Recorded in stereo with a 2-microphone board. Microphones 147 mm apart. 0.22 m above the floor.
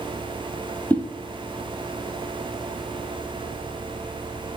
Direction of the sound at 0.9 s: 10° left (ahead or behind).